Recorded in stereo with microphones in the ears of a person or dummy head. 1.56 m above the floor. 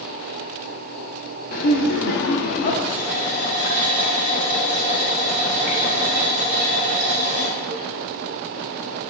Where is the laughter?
50° left (ahead or behind), 0.9 m; by 2.8 s 45° left (ahead or behind), 0.9 m.